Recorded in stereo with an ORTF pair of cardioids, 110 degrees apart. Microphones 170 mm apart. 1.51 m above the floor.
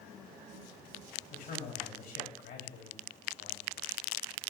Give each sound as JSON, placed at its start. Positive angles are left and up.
{"t": 1.3, "sound": "a man speaking", "azimuth_deg": 60, "distance_m": 3.0}